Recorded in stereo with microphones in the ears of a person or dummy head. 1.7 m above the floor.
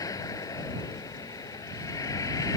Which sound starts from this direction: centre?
A vehicle, at 0.0 s.